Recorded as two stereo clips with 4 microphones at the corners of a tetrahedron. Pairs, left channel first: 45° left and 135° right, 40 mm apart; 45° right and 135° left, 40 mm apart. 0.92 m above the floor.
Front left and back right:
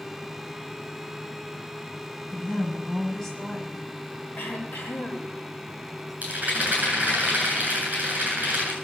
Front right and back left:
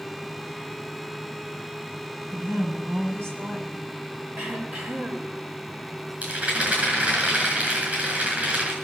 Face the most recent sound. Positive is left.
turn(degrees=180)